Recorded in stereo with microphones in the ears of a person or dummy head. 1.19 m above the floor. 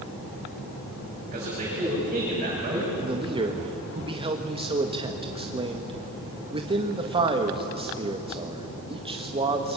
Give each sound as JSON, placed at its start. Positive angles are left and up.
{"t": 1.3, "sound": "a man speaking", "side_deg": -30, "distance_m": 7.5}
{"t": 3.0, "sound": "a man speaking", "side_deg": -25, "distance_m": 1.8}